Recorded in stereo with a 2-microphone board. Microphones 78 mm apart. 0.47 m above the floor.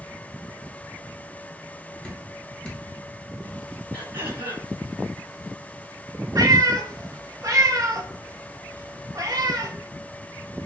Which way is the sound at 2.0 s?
5° left (ahead or behind).